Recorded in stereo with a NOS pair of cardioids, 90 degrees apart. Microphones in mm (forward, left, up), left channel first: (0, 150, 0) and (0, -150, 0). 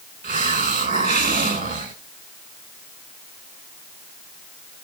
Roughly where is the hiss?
Ahead right.